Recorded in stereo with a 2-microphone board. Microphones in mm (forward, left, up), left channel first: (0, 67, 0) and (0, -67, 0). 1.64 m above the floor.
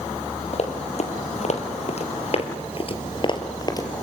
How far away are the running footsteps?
About 3.5 m.